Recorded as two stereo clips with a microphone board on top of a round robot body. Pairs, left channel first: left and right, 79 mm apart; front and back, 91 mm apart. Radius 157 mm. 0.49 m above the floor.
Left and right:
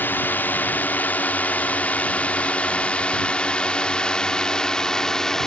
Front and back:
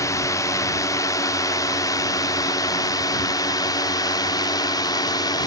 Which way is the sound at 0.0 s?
35° left.